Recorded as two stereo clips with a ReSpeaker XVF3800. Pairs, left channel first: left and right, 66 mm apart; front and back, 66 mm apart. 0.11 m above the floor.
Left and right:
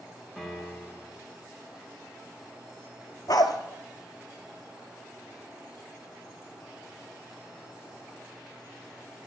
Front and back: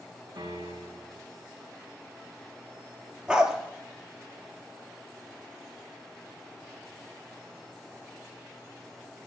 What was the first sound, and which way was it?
A piano, 175° right.